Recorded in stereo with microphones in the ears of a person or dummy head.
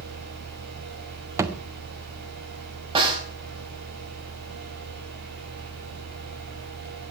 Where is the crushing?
No crushing in this recording.